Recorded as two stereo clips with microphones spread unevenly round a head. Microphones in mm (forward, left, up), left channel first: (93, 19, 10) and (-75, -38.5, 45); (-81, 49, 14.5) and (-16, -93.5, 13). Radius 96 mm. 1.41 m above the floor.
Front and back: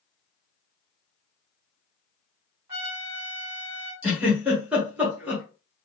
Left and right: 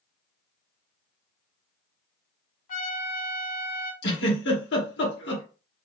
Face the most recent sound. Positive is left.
turn(degrees=115)